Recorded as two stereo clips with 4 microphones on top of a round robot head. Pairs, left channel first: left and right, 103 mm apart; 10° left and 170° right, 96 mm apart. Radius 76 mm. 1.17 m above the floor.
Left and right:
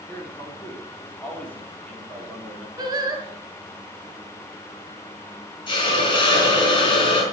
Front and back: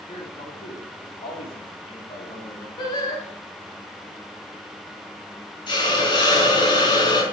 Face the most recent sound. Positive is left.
turn(degrees=45)